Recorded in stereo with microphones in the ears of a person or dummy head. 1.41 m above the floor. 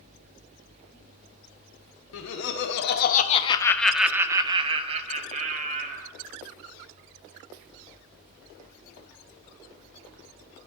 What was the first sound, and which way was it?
Laughter, 80° left.